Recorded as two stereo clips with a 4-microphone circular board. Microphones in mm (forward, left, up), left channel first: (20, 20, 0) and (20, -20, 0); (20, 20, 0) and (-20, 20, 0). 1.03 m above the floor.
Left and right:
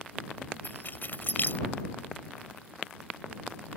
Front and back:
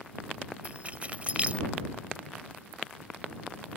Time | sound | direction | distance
0.6 | keys jangling | 125° left | ?